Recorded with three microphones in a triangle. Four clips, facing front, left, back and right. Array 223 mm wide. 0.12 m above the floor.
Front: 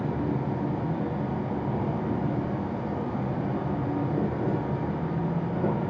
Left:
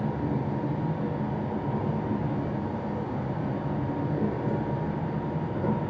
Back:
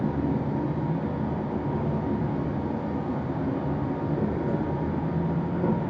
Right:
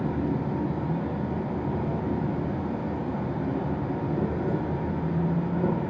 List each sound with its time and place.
0.0 s an insect: 115° right, 1.6 m